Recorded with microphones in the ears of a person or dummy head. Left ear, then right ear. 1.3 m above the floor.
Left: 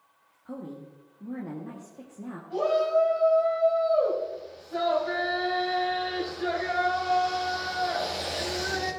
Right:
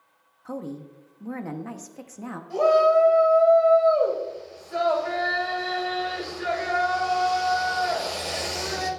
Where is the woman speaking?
65° right (ahead or behind), 1.0 m.